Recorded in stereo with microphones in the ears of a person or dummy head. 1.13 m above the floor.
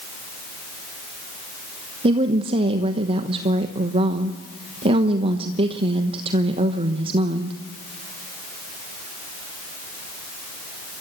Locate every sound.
2.0 s a woman speaking: 35° right (ahead or behind), 1.1 m